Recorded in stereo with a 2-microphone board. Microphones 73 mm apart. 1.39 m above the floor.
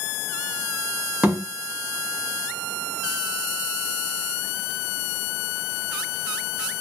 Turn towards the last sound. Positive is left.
turn(degrees=-15)  # may be behind; listen again after turning